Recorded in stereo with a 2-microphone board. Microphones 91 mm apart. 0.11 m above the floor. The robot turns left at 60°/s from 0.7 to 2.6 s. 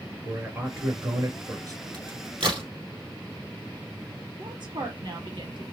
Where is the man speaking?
40° right, 1.5 m; by 1.8 s 105° right, 1.5 m.